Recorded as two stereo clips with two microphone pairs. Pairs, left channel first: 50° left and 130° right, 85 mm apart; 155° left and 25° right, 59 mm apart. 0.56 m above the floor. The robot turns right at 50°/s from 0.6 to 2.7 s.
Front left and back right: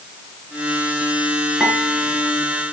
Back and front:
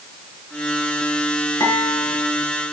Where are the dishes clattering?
150° left, 5.5 m; by 2.2 s straight behind, 5.5 m.